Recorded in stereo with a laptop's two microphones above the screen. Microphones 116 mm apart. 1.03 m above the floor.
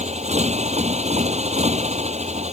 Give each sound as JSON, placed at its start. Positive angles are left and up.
{"t": 0.0, "sound": "a motorcycle", "side_deg": -80}